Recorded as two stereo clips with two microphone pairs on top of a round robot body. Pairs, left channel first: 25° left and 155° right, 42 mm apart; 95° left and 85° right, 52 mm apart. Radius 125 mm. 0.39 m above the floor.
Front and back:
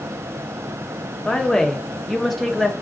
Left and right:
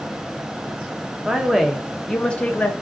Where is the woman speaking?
40° right, 1.1 m; by 2.7 s 115° left, 1.1 m.